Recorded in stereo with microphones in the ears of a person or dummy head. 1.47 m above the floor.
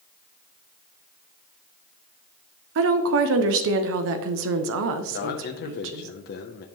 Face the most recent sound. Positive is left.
turn(degrees=55)  # may be behind; listen again after turning